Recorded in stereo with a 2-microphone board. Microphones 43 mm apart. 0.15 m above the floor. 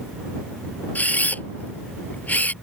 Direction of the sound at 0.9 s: 40° left (ahead or behind).